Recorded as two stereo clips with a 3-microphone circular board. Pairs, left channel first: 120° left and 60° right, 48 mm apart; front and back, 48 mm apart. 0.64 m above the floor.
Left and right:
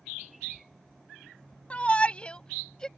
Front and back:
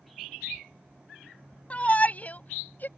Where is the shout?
55° left; by 2.9 s 45° left.